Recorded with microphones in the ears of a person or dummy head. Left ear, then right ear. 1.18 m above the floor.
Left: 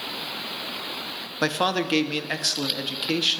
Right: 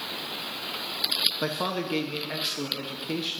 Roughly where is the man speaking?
Left.